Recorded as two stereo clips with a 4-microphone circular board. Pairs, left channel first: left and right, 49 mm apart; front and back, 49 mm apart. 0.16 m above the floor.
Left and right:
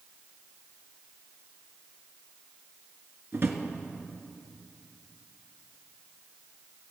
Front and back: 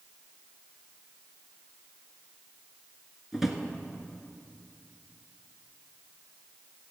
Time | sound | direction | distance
3.3 | a drawer | 100° right | 1.4 m